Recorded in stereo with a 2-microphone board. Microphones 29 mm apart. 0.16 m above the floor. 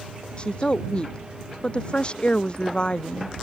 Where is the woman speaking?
35° left (ahead or behind).